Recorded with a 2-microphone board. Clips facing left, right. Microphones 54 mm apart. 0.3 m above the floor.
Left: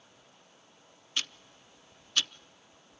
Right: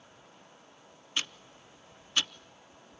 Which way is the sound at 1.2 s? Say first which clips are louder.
Right 1 dB; 20° right (ahead or behind).